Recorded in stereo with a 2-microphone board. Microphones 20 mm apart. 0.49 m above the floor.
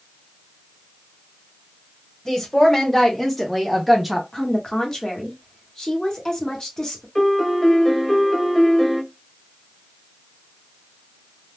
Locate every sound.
2.2 s a woman speaking: 25° left (ahead or behind), 1.3 m; by 4.2 s 15° right (ahead or behind), 0.7 m
4.3 s a woman speaking: 30° left (ahead or behind), 1.2 m
7.2 s a piano: 10° left (ahead or behind), 0.8 m